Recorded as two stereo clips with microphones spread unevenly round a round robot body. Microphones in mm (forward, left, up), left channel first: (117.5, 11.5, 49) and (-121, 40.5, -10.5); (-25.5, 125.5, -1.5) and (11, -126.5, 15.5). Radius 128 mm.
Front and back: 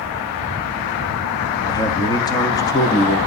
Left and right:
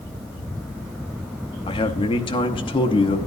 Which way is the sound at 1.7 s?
75° left.